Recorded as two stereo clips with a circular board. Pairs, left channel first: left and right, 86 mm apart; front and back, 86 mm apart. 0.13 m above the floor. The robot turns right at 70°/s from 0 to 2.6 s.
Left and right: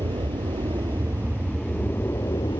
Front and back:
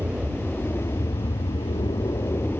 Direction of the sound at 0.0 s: 115° right.